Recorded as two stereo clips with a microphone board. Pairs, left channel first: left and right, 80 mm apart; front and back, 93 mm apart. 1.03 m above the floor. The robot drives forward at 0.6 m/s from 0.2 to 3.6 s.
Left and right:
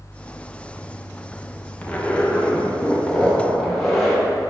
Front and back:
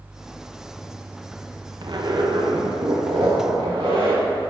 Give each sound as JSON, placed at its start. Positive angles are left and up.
{"t": 1.8, "sound": "a zipper", "azimuth_deg": 160, "distance_m": 0.7}